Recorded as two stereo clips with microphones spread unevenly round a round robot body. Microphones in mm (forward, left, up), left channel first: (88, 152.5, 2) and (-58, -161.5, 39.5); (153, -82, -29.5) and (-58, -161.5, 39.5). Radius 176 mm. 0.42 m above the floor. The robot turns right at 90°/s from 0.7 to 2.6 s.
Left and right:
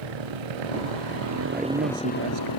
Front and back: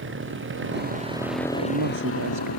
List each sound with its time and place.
0.0 s a motorcycle: 130° right; by 2.6 s 45° left
1.5 s a man speaking: 155° left; by 2.5 s 120° right